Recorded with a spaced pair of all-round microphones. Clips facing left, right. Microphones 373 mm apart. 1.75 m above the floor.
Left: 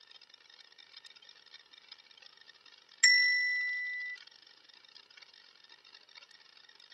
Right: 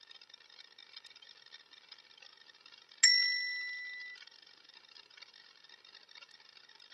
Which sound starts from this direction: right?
A bell, at 3.0 s.